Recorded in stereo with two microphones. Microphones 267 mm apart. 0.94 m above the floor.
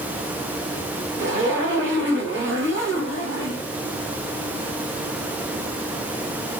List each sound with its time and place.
1.2 s a zipper: 45° right (ahead or behind), 1.9 m